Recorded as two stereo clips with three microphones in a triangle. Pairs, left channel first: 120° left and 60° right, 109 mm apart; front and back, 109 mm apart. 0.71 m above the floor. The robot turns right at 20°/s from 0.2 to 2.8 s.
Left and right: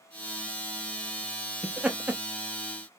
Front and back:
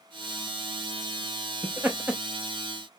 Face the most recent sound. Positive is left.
turn(degrees=-110)